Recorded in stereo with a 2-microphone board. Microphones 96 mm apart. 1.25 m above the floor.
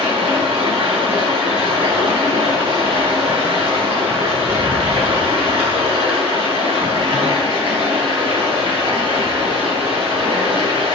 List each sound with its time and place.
0.0 s running water: 80° right, 4.5 m